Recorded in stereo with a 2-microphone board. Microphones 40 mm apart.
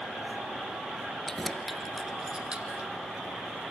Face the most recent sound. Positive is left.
turn(degrees=-40)  # may be behind; listen again after turning